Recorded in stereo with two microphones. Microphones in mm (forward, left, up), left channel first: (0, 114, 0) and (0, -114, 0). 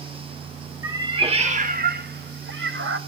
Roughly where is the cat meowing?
Centre.